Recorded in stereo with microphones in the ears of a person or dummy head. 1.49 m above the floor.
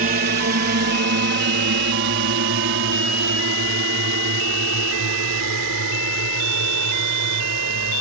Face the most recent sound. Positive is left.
turn(degrees=-75)  # may be behind; listen again after turning